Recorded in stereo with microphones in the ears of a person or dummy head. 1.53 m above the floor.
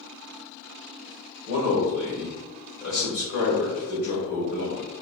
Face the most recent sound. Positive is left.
turn(degrees=50)  # may be behind; listen again after turning